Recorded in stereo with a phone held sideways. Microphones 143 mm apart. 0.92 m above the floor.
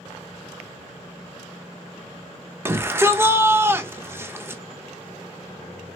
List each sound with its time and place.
2.6 s a shout: 20° right (ahead or behind), 0.6 m